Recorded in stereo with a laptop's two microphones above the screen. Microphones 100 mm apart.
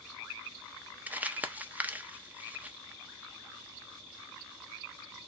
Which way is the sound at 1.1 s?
15° right (ahead or behind).